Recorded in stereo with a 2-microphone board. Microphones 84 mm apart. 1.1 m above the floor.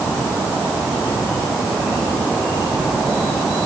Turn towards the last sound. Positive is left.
No sound to turn to.